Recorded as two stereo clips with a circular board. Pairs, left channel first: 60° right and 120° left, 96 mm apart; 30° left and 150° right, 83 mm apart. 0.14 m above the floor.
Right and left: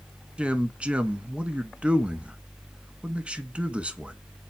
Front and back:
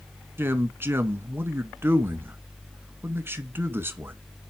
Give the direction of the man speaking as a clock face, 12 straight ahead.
6 o'clock.